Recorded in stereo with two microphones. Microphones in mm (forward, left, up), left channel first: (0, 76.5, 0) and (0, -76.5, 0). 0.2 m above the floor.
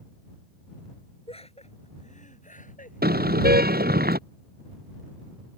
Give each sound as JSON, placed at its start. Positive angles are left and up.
{"t": 1.3, "sound": "laughter", "side_deg": 40}
{"t": 3.0, "sound": "a car horn", "side_deg": -80}